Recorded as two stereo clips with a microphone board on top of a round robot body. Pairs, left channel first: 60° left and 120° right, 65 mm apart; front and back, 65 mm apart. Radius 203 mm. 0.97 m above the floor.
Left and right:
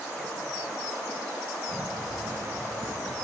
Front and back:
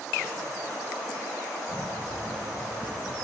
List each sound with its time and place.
1.7 s running footsteps: 85° right, 4 m; by 3.2 s 80° right, 5 m